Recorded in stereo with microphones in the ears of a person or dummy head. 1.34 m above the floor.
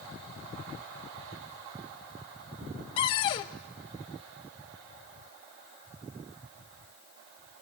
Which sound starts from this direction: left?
A cupboard door, at 3.0 s.